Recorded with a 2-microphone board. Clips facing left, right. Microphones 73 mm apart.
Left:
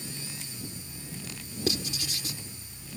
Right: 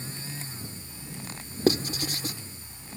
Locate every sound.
1.7 s writing: 40° right (ahead or behind)